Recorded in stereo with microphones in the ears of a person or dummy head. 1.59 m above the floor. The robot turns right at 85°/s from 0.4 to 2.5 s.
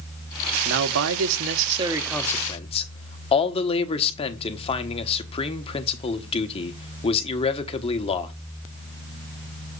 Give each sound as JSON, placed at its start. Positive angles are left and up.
{"t": 0.7, "sound": "a man speaking", "azimuth_deg": -125, "distance_m": 1.2}